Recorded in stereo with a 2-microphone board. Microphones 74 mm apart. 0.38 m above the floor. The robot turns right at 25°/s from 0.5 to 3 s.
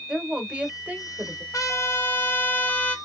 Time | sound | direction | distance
0.1 | a woman speaking | 15° right (ahead or behind) | 1.2 m
1.5 | a trumpet | 125° left | 1.2 m